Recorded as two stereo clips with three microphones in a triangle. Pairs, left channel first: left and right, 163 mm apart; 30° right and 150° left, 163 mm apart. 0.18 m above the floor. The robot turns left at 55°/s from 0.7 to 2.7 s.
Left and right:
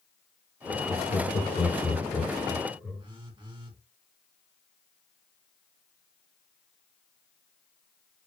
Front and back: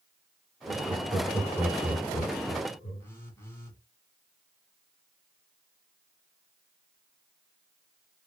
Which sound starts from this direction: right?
A phone buzzing, at 3.0 s.